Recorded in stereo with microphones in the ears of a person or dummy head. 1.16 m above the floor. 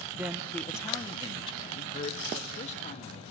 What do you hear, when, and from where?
0.1 s a man speaking: 10° right (ahead or behind), 0.7 m; by 3.2 s 45° left (ahead or behind), 2.5 m